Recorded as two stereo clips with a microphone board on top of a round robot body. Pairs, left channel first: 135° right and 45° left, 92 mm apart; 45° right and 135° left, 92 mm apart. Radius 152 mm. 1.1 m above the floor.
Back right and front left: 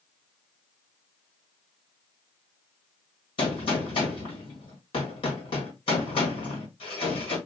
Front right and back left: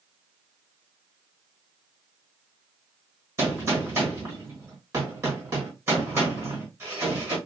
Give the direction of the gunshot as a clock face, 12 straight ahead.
5 o'clock.